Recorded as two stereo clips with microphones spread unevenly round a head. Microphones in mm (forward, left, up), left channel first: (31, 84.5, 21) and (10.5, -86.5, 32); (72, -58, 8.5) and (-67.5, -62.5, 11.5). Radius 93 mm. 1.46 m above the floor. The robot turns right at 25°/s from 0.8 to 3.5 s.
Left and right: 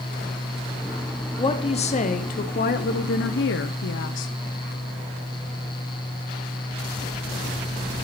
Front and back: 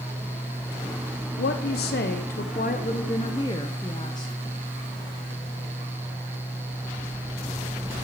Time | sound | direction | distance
1.4 | a woman speaking | 20° left | 0.7 m